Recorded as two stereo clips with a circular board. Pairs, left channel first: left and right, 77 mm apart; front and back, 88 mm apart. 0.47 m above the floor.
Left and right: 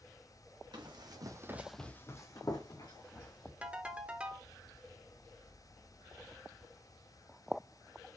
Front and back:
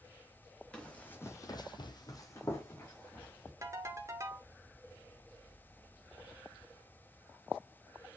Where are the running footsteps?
80° right, 1.5 m; by 3.5 s 65° left, 3 m.